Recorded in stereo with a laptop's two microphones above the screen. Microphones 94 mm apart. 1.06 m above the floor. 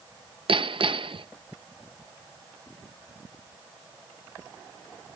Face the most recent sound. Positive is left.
turn(degrees=-65)  # may be behind; listen again after turning